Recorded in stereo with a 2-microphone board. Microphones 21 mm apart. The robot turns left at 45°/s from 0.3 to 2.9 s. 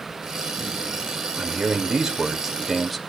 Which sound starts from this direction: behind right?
A man speaking, at 1.4 s.